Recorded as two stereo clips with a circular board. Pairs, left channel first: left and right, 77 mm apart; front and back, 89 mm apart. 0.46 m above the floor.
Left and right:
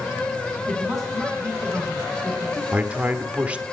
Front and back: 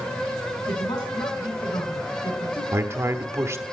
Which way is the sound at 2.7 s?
150° right.